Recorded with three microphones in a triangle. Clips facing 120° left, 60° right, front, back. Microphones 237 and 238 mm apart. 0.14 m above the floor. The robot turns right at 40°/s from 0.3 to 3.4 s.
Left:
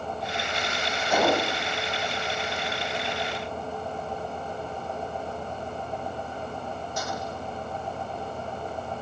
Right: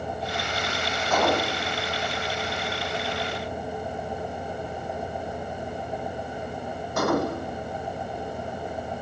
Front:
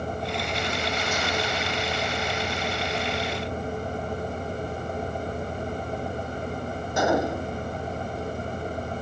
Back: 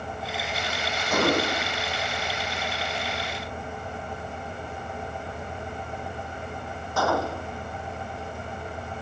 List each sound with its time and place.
1.1 s a gunshot: 160° right; by 7.6 s 70° right